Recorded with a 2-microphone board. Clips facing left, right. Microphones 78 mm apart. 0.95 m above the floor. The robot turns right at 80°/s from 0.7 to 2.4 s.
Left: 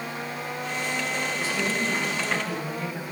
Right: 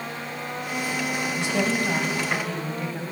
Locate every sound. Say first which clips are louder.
1.3 s a woman speaking: right 3 dB; 90° right, 5.5 m; by 3.0 s straight ahead, 5.5 m